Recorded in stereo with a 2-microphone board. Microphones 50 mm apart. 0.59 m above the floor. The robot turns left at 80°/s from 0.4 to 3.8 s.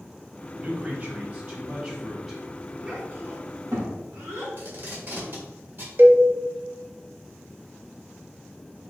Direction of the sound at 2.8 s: 20° right (ahead or behind).